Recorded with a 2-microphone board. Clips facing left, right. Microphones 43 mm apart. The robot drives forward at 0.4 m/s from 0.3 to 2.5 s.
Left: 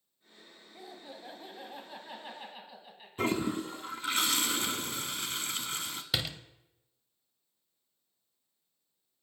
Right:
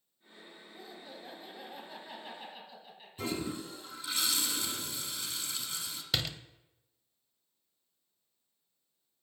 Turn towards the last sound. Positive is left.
turn(degrees=5)  # may be behind; listen again after turning